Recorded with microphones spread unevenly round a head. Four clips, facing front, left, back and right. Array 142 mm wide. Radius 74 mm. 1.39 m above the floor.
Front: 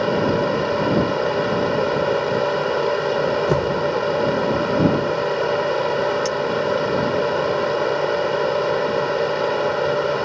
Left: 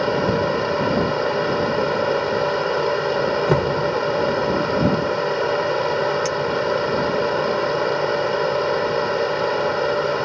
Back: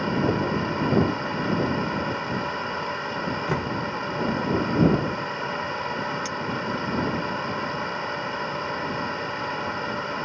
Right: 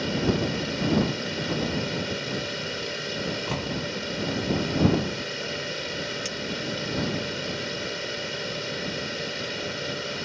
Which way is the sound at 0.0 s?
40° left.